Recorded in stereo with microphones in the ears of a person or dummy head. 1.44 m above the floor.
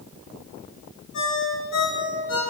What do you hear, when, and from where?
1.1 s a ringtone: 70° left (ahead or behind), 3.5 m